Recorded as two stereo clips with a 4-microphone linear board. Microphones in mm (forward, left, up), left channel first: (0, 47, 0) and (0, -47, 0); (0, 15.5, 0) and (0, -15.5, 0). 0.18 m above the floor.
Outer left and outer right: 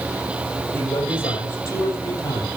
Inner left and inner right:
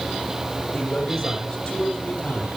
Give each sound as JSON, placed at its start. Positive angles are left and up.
{"t": 0.7, "sound": "a man speaking", "side_deg": 25, "distance_m": 5.5}